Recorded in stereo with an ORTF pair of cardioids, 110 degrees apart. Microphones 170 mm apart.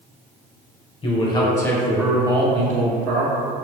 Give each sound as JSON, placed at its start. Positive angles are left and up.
{"t": 1.0, "sound": "a man speaking", "azimuth_deg": 35, "distance_m": 1.0}